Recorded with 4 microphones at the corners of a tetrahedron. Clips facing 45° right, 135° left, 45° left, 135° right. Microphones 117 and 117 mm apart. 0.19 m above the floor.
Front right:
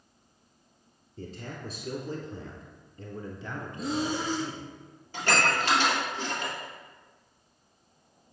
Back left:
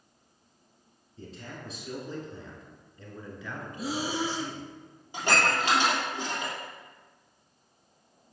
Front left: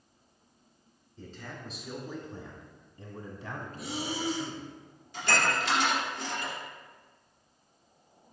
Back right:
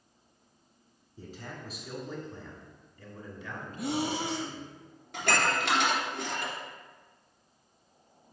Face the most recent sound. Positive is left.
turn(degrees=-150)